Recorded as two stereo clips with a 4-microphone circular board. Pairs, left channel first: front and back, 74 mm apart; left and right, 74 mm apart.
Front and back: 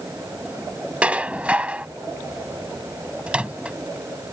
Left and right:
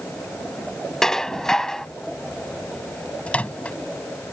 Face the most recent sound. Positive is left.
turn(degrees=130)